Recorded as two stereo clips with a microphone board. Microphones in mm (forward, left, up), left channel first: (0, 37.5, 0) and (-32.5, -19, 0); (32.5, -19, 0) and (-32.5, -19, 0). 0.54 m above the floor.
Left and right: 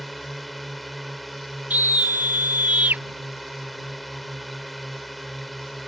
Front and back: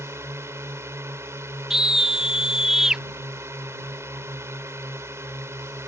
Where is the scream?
105° right.